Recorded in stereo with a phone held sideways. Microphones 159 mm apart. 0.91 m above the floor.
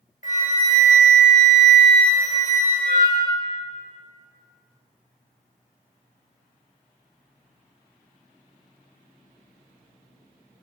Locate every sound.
0.2 s a flute: 50° left (ahead or behind), 0.8 m